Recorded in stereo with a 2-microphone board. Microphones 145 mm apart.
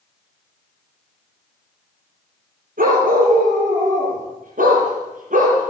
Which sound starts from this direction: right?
A dog barking, at 2.8 s.